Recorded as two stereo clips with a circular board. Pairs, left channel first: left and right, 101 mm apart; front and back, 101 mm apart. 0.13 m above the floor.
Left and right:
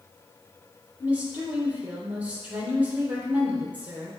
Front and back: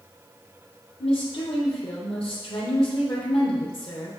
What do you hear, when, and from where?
1.0 s a woman speaking: 15° right, 3.5 m